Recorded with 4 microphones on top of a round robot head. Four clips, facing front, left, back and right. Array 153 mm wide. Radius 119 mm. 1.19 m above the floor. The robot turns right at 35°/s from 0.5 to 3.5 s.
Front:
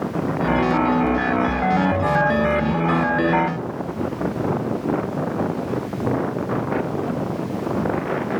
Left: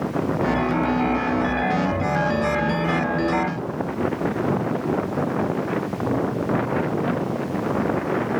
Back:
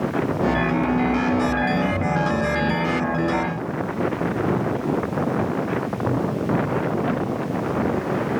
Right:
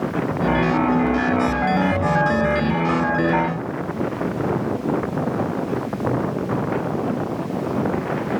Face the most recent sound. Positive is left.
No sound to turn to.